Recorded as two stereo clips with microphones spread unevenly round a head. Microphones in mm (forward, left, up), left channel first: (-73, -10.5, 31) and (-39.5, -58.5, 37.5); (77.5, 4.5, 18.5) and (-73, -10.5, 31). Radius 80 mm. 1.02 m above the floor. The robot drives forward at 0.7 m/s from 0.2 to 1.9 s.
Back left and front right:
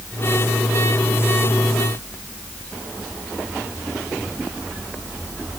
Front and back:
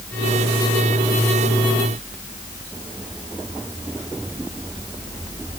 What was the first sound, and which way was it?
Only background noise.